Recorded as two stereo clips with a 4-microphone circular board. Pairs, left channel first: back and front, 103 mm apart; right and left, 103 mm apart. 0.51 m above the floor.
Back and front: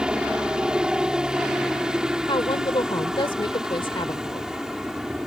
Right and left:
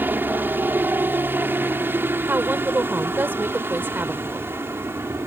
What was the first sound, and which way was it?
A helicopter, 65° left.